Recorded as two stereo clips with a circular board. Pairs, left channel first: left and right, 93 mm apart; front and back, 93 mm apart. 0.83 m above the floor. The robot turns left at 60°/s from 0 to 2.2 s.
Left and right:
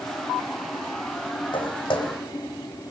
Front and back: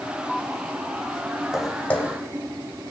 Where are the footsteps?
95° left, 2 m; by 2.2 s 60° left, 2 m.